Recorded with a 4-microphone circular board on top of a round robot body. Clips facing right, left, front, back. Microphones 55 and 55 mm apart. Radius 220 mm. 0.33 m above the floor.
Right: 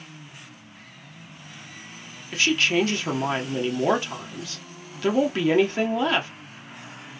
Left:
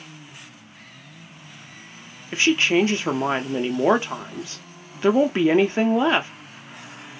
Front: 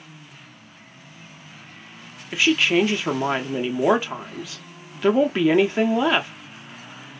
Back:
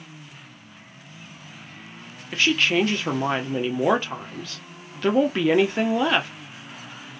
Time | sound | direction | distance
2.3 | a woman speaking | 75° left | 0.8 m